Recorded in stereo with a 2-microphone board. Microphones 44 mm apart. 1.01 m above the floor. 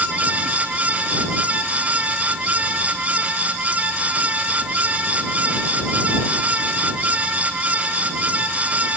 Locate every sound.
Only background noise.